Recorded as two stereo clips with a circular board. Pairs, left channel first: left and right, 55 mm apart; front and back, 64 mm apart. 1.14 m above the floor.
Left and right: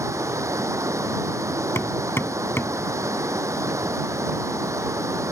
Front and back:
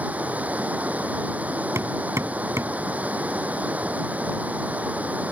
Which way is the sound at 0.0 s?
115° right.